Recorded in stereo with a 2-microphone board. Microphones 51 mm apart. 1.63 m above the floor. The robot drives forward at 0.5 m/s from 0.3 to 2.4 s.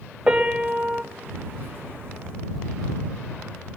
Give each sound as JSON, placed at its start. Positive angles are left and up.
{"t": 0.3, "sound": "a piano", "side_deg": -20, "distance_m": 1.0}